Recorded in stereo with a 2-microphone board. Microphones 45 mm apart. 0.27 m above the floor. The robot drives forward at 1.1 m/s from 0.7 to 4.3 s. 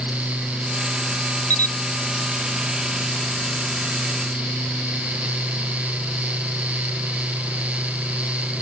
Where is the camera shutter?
35° left (ahead or behind).